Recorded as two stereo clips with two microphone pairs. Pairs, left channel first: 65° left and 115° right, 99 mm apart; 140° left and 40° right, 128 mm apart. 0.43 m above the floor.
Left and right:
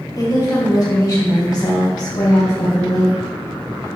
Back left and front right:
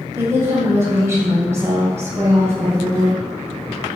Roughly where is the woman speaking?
Ahead.